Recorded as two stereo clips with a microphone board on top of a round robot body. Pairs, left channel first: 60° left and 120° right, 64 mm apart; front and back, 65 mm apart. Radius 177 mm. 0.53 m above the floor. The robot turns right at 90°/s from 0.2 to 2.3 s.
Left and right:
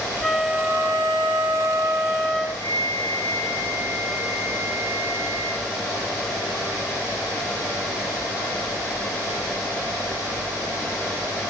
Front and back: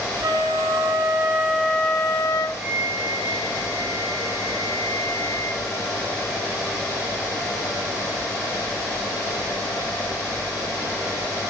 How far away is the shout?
I don't hear a shout.